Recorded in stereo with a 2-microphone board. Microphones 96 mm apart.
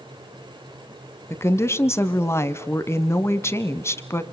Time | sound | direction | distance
1.3 | a woman speaking | 25° left (ahead or behind) | 1.1 m